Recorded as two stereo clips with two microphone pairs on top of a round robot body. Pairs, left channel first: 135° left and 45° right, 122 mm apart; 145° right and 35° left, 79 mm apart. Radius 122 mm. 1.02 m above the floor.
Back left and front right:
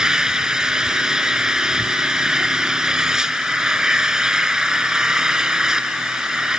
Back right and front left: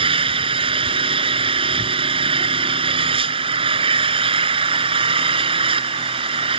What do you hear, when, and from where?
0.0 s an engine running: 40° left